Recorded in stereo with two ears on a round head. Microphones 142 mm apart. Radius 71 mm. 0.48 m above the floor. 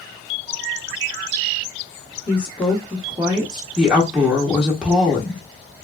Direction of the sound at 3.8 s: 5° right (ahead or behind).